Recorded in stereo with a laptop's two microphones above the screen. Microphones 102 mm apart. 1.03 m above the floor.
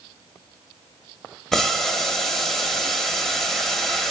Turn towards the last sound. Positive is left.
turn(degrees=5)  # may be behind; listen again after turning